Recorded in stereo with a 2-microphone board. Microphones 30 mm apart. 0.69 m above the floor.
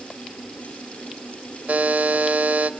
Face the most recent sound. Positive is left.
turn(degrees=-70)  # may be behind; listen again after turning